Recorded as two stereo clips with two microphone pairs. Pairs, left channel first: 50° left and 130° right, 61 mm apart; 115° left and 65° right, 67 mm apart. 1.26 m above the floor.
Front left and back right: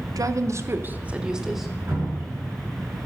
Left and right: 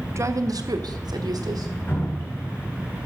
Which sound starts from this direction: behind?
Dripping, at 1.9 s.